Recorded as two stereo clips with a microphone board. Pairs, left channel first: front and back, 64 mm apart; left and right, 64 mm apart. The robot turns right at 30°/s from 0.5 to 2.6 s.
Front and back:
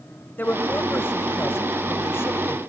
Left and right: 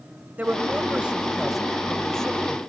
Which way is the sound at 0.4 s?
40° right.